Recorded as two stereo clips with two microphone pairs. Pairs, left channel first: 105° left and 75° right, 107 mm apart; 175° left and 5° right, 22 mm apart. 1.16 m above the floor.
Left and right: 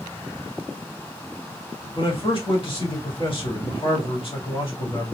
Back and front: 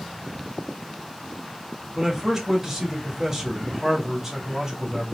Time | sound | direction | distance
1.9 | a man speaking | 70° left | 2.5 m